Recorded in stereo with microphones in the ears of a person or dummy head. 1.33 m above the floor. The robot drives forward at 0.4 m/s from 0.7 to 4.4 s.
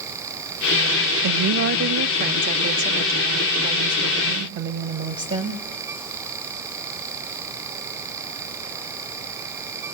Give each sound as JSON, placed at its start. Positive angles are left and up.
{"t": 1.2, "sound": "a woman speaking", "side_deg": -60, "distance_m": 0.6}